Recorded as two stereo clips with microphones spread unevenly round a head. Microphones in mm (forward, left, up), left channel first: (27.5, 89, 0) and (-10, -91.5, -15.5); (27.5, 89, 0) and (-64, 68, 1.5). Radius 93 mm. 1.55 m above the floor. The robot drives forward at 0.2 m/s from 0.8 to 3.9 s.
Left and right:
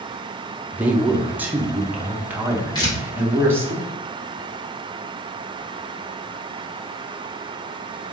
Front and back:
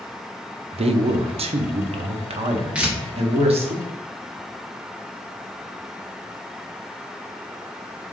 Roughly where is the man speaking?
Behind.